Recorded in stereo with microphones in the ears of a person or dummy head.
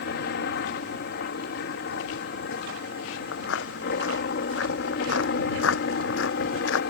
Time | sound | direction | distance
0.0 | a helicopter | 60° left (ahead or behind) | ?
3.3 | footsteps | 80° left | ?